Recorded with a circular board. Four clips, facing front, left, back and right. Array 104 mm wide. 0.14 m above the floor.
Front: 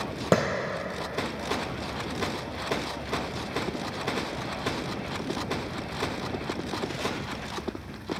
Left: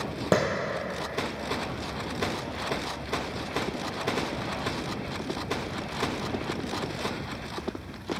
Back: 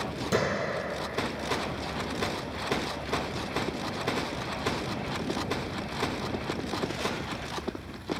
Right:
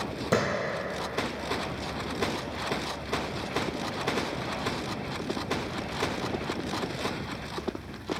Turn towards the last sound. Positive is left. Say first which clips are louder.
# left 2 dB, front 4 dB
turn(degrees=30)